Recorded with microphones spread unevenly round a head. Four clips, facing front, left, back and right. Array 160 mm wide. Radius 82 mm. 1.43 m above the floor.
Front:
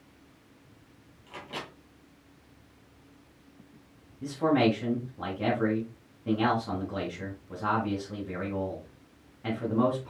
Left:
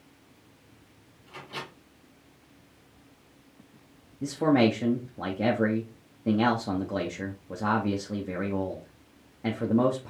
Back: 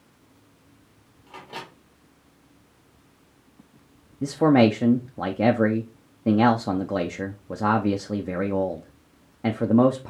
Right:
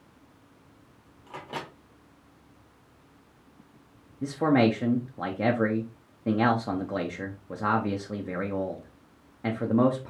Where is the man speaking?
Straight behind, 0.7 m.